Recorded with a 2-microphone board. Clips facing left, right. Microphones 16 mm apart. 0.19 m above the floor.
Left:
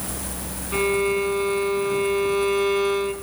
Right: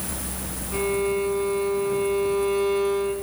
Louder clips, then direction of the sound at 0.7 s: Left 3 dB; 40° left (ahead or behind).